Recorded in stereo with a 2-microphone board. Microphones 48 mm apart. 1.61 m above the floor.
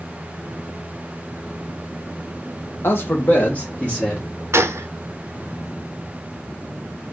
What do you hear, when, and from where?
2.8 s a man speaking: 55° left (ahead or behind), 1.1 m; by 4.2 s 20° left (ahead or behind), 1.3 m
4.5 s a gunshot: 70° right (ahead or behind), 0.6 m